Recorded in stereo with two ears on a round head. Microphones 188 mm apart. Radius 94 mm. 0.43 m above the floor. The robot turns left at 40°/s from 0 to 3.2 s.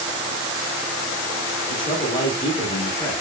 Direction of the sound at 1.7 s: 20° left (ahead or behind).